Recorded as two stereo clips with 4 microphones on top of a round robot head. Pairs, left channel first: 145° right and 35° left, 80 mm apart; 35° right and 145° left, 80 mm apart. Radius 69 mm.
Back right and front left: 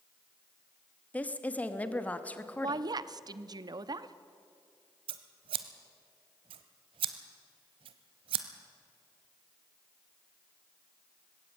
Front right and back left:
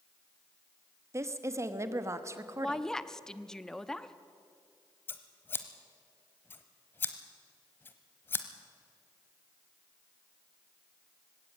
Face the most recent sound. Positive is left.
turn(degrees=30)